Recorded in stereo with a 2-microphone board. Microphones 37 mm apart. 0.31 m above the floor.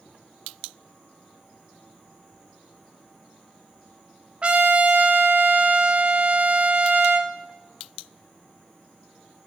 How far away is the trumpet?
About 0.5 m.